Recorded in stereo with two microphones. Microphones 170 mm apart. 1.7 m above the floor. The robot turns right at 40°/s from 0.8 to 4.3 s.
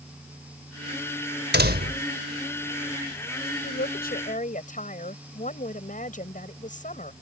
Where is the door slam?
80° right; by 2.1 s 60° right (ahead or behind).